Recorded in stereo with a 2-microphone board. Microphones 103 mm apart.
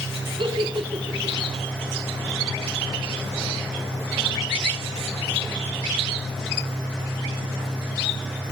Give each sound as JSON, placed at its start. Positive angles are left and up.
{"t": 0.4, "sound": "a giggle", "side_deg": -55, "distance_m": 2.0}